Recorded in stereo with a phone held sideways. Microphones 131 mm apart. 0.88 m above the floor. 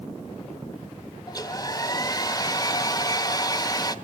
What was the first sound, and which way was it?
A hair dryer, 30° left (ahead or behind).